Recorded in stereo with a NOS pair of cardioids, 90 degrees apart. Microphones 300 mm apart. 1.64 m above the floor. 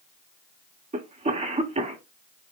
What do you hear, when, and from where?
0.9 s a cough: 25° right, 1.6 m